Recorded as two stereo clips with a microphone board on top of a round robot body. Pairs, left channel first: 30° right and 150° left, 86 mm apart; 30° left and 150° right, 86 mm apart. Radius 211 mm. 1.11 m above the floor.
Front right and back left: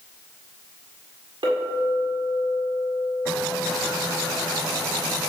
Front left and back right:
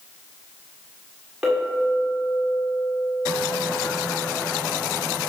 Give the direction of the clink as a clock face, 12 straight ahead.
8 o'clock.